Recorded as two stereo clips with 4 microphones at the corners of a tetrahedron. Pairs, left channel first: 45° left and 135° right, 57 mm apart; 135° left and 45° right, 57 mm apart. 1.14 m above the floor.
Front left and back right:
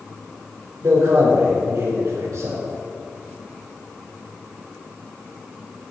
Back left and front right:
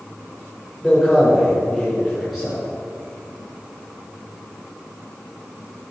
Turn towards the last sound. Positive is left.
turn(degrees=-135)